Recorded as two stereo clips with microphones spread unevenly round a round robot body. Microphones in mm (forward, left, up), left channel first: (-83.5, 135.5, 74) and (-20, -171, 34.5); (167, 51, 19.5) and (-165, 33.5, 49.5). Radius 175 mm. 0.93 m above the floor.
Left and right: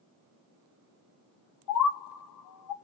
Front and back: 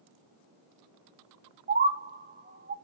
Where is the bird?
115° left, 1.1 m.